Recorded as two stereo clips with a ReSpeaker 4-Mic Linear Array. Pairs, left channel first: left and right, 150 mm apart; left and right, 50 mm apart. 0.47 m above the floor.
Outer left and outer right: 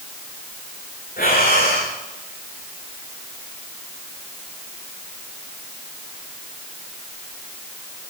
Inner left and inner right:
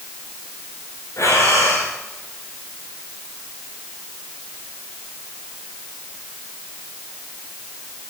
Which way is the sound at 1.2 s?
80° left.